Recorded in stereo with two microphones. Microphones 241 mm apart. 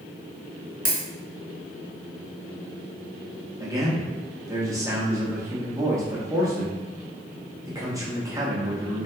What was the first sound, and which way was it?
A dropped coin, 65° right (ahead or behind).